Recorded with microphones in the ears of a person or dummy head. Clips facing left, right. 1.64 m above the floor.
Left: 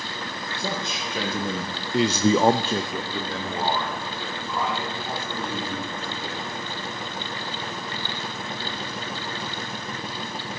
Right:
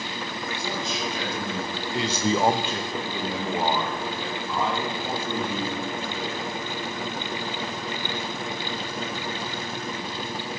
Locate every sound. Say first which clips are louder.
0.6 s a man speaking: left 1 dB; 55° left (ahead or behind), 2.5 m; by 6.5 s 35° right (ahead or behind), 4.5 m